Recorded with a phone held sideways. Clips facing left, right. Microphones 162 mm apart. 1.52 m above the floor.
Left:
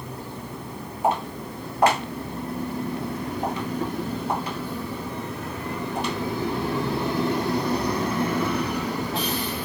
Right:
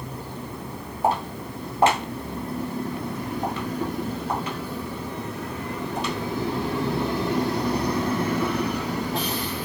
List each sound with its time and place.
1.0 s footsteps: 40° right (ahead or behind), 1.9 m; by 6.1 s 55° left (ahead or behind), 2.5 m